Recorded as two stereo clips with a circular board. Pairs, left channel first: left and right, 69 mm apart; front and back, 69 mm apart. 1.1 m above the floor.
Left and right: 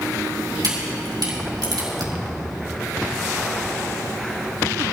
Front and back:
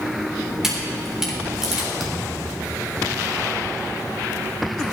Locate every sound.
0.6 s a camera shutter: 100° right, 3.5 m
2.0 s a thud: 90° right, 2.5 m